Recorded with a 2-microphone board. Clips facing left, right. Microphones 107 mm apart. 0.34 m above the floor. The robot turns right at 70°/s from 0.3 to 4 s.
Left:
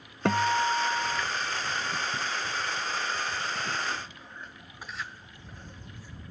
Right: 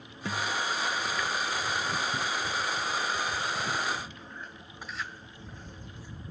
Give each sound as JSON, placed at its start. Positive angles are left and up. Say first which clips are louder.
{"t": 0.2, "sound": "a guitar", "louder": "left 7 dB", "azimuth_deg": 65}